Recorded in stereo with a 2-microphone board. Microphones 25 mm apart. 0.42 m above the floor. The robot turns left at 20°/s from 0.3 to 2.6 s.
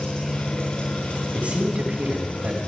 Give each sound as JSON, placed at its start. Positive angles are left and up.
{"t": 0.0, "sound": "an engine running", "azimuth_deg": 135, "distance_m": 9.0}
{"t": 1.3, "sound": "a man speaking", "side_deg": -70, "distance_m": 4.5}